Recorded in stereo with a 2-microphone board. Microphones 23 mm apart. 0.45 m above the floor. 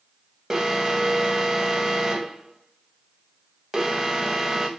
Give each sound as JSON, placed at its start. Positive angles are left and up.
{"t": 0.5, "sound": "an alarm", "side_deg": -20, "distance_m": 1.4}